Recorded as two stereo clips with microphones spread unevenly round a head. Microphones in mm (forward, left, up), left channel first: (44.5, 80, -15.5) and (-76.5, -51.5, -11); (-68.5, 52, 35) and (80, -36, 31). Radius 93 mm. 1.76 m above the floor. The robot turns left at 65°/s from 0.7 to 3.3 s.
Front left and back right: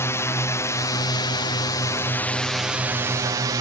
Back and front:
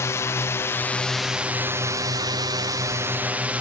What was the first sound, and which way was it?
A drone, 100° left.